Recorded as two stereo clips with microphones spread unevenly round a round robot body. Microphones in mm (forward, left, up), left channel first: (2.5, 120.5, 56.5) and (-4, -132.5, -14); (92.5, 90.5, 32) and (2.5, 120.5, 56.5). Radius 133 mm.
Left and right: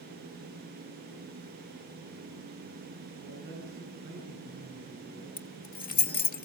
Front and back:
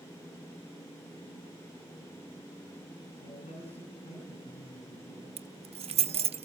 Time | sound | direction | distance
3.2 | a man speaking | 20° right | 7.5 m
5.4 | keys jangling | 150° left | 1.1 m